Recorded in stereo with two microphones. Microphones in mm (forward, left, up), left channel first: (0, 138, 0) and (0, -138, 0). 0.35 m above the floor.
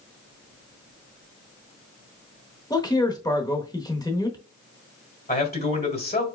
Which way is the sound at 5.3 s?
35° left (ahead or behind).